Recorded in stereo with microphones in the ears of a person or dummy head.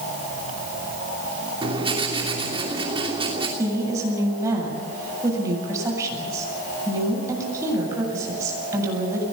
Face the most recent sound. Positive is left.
turn(degrees=-20)  # may be behind; listen again after turning